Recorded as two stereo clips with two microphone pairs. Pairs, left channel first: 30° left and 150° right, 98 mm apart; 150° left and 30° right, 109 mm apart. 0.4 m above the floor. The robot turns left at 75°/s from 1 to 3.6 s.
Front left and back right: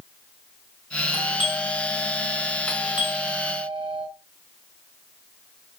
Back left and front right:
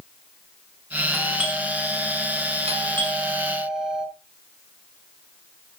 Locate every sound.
1.1 s a doorbell: 70° left, 5 m; by 4.0 s 115° right, 5 m